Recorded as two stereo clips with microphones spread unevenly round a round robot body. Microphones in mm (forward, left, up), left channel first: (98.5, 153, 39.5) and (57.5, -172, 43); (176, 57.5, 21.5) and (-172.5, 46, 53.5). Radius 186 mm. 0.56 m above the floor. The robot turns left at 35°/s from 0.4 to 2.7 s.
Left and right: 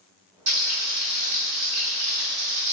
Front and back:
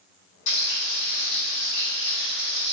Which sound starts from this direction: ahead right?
Frying, at 0.5 s.